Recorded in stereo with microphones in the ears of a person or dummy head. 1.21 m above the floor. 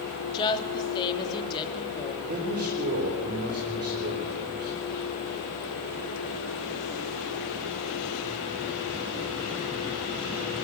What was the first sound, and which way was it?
A woman speaking, 25° left (ahead or behind).